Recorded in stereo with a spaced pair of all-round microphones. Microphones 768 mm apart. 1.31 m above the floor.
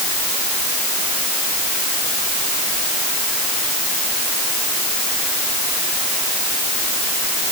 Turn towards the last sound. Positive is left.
No sound to turn to.